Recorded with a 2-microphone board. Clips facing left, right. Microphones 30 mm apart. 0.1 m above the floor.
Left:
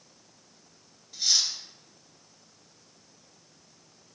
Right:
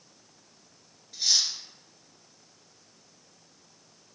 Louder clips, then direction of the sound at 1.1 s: Even; 15° right (ahead or behind).